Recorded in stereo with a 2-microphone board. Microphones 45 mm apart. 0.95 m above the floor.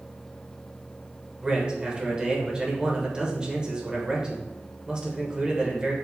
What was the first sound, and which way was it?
A man speaking, 20° right (ahead or behind).